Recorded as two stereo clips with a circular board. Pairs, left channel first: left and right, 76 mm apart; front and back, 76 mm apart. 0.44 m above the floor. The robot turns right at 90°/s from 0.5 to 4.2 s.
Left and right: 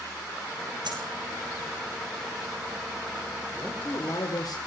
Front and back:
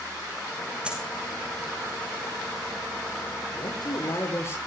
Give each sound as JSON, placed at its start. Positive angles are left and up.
{"t": 0.8, "sound": "a dropped coin", "azimuth_deg": -100, "distance_m": 6.5}
{"t": 3.5, "sound": "a man speaking", "azimuth_deg": 0, "distance_m": 8.0}